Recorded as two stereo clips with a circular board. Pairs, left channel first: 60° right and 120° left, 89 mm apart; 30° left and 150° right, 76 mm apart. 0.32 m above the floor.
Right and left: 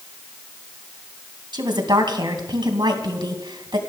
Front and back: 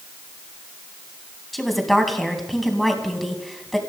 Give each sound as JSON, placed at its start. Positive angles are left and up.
{"t": 1.5, "sound": "a woman speaking", "azimuth_deg": 120, "distance_m": 3.0}